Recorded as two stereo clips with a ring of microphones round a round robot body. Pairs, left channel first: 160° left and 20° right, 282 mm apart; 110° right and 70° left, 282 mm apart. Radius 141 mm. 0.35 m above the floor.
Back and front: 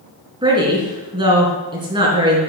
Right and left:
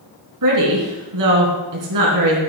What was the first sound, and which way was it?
A woman speaking, 50° left.